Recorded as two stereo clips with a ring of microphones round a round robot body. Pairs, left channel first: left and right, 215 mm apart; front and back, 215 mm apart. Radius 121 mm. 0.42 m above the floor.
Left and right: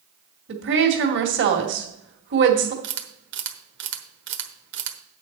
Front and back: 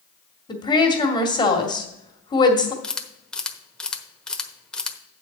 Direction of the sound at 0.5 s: 70° right.